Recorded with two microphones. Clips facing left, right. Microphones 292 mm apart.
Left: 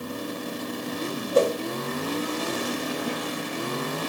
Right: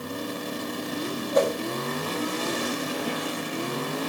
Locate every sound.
1.3 s a whoosh: 35° left (ahead or behind), 1.6 m